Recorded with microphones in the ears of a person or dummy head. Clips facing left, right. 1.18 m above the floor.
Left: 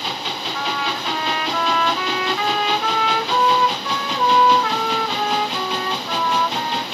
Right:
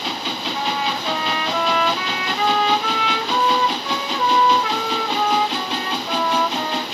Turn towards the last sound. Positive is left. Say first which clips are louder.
# right 2 dB
turn(degrees=-20)  # may be behind; listen again after turning